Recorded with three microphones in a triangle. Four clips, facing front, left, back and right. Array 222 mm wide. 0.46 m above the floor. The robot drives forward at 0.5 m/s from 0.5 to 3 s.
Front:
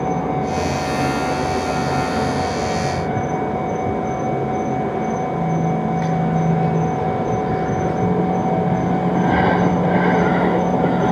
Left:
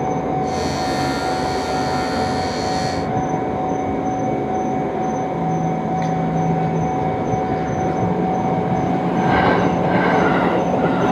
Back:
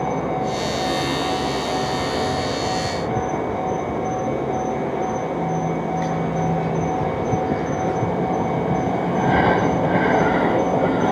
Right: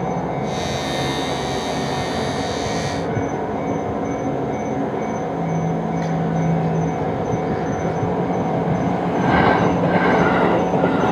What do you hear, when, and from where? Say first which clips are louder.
0.0 s an insect: left 3 dB, front 2 dB; 35° left, 9 m; by 11.1 s 40° left, 8 m